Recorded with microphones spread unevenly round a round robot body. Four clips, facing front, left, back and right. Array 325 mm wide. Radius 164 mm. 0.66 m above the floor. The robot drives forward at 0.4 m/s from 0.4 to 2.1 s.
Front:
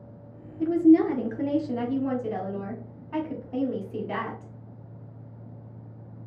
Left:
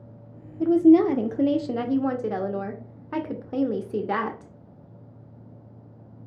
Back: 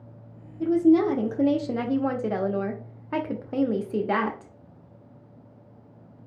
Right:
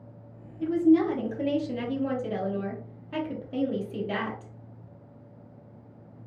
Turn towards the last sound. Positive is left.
turn(degrees=145)